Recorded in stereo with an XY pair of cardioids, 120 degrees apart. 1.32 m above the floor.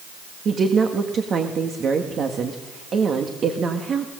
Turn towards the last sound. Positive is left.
turn(degrees=-40)